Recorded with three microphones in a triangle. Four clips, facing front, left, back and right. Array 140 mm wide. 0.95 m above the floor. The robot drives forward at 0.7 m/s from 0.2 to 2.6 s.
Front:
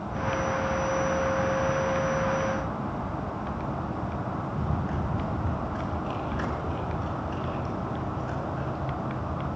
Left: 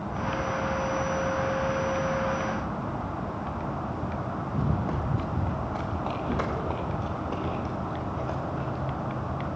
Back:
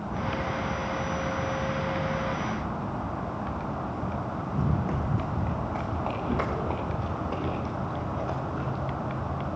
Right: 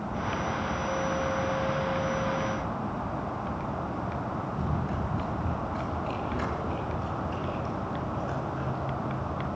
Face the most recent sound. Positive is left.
turn(degrees=155)